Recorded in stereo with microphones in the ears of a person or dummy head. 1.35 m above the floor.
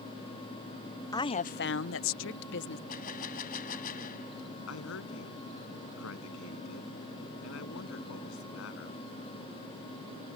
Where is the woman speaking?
15° left (ahead or behind); by 2.8 s 60° left (ahead or behind).